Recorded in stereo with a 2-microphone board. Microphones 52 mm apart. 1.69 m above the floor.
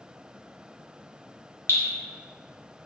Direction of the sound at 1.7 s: 55° left (ahead or behind).